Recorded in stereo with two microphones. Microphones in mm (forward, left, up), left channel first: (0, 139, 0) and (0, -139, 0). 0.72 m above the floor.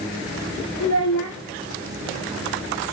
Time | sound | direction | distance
0.8 | a child speaking | 80° left | 1.2 m